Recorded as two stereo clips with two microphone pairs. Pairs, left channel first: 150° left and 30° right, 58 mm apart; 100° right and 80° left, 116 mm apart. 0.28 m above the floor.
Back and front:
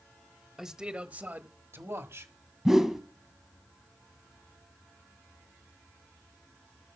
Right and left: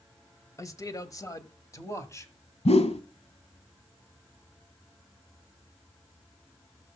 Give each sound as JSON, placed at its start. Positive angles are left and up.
{"t": 0.6, "sound": "a man speaking", "azimuth_deg": -105, "distance_m": 1.1}
{"t": 2.6, "sound": "a whoosh", "azimuth_deg": -115, "distance_m": 0.8}